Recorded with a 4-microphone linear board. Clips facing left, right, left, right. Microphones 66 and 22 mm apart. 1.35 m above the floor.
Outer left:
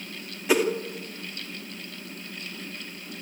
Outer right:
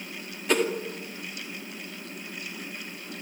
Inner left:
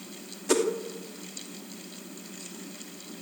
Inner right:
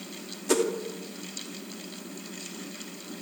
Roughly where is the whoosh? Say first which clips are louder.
Outer left 2 dB, even; centre.